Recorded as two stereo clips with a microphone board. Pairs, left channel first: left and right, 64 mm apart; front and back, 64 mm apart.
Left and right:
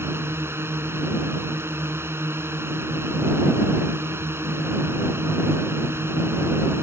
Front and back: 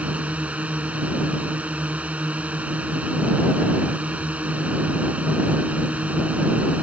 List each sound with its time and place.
0.0 s a drone: 120° right